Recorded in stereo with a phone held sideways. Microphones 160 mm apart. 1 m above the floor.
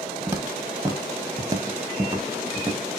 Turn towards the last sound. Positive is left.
turn(degrees=-10)  # may be behind; listen again after turning